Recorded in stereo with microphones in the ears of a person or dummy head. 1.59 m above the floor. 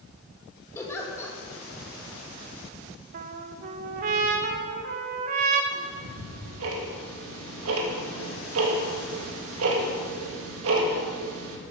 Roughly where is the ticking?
Right.